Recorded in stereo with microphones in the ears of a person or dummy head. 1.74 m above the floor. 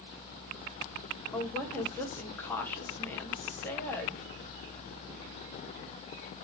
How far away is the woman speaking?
About 2.5 m.